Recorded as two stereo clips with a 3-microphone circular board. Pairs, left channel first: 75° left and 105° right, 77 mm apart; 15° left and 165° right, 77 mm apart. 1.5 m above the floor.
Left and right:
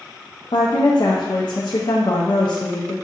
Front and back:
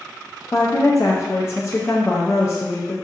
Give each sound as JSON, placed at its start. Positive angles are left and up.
{"t": 0.5, "sound": "a woman speaking", "azimuth_deg": 70, "distance_m": 0.5}